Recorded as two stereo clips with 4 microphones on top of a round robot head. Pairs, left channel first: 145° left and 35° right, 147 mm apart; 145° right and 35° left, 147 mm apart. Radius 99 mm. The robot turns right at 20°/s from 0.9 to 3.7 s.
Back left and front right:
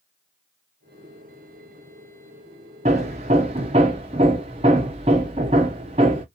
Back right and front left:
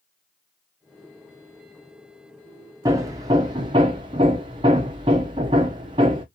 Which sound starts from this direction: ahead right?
Hammering, at 2.9 s.